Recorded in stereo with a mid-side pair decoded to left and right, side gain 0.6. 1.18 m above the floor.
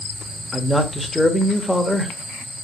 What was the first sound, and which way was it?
A man speaking, 10° left.